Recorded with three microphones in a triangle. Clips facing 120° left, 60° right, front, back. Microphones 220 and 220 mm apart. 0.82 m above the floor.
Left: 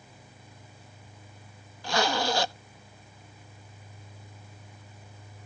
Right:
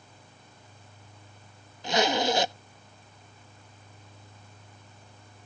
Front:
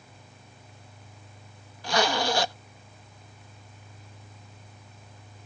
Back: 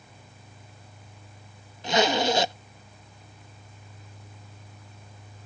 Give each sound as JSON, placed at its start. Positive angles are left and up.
{"t": 1.8, "sound": "a zipper", "azimuth_deg": -120}